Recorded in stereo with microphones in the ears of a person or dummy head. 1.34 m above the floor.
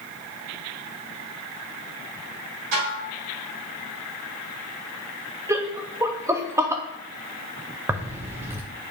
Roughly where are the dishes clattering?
Right.